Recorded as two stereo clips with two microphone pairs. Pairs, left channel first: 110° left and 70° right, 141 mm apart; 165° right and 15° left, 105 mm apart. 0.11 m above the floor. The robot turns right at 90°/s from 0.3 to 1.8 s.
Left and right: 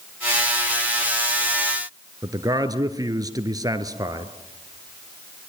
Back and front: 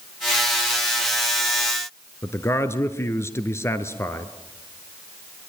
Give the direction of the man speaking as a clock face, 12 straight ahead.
4 o'clock.